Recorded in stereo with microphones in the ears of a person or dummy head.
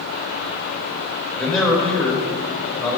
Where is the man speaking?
10° left (ahead or behind), 4 m.